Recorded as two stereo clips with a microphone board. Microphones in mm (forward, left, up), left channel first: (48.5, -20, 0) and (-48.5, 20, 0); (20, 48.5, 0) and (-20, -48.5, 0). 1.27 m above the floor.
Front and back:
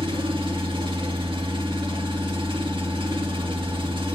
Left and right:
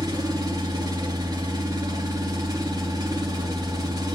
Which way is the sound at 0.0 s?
165° right.